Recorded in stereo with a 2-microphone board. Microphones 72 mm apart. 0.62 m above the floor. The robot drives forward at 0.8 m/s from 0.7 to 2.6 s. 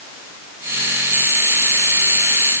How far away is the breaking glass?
I don't hear breaking glass.